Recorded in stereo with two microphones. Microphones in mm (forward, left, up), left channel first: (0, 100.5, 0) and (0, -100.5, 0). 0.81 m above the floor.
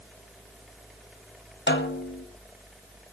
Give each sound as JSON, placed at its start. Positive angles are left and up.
{"t": 1.7, "sound": "a snare drum", "side_deg": 65, "distance_m": 1.5}